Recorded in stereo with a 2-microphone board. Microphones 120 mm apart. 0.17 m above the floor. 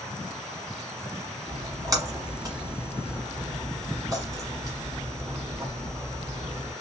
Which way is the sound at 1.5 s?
30° right (ahead or behind).